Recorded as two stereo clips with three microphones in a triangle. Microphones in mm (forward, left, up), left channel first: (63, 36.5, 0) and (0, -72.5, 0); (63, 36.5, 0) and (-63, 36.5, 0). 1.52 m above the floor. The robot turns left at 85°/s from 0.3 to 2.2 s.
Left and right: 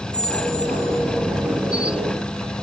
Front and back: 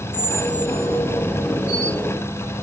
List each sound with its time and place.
0.1 s a squeak: 75° left, 3.5 m; by 1.2 s straight ahead, 3.5 m